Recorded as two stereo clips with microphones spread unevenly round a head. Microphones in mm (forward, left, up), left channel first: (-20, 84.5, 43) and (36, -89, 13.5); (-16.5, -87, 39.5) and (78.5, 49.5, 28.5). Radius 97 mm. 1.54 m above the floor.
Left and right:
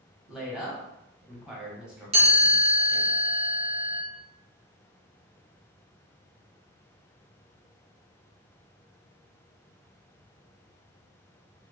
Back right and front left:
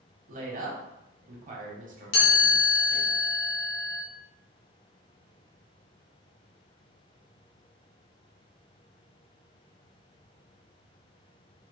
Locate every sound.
0.3 s a woman speaking: 15° left, 1.3 m
2.1 s a chime: 135° right, 1.3 m